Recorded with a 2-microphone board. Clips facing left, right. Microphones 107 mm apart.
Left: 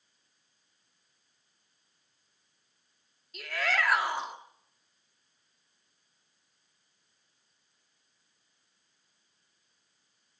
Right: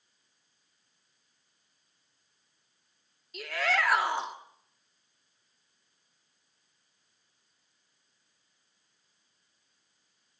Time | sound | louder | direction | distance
3.3 | a shout | right 2 dB | centre (ahead or behind) | 2 m